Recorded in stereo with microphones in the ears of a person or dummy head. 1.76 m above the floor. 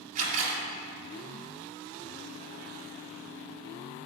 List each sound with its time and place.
0.1 s a camera shutter: 40° right (ahead or behind), 2 m